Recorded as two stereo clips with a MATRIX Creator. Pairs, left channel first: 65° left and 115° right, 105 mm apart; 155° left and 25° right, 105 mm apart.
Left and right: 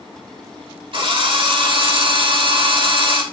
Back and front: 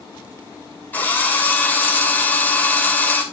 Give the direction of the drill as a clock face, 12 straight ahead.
4 o'clock.